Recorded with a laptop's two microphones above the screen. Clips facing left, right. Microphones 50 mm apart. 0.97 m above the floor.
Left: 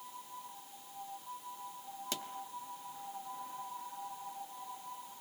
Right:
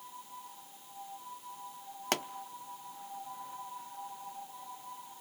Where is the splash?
No splash in this recording.